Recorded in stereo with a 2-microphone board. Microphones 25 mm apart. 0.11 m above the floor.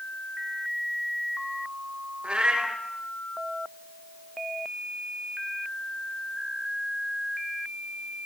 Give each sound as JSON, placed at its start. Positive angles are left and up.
{"t": 2.2, "sound": "a cat meowing", "side_deg": -45, "distance_m": 0.8}